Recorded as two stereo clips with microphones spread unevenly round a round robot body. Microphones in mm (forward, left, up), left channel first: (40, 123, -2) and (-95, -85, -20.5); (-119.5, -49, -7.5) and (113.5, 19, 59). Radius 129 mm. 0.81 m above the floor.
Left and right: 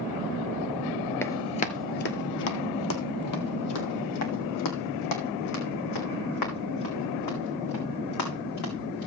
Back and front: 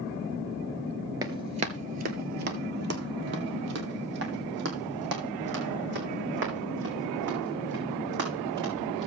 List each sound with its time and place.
1.2 s running footsteps: 5° right, 0.8 m; by 9.1 s 60° left, 5.5 m